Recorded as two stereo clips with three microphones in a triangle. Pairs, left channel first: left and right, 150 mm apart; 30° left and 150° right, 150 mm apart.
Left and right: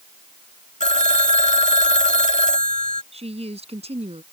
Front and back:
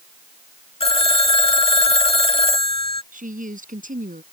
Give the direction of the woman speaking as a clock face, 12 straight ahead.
4 o'clock.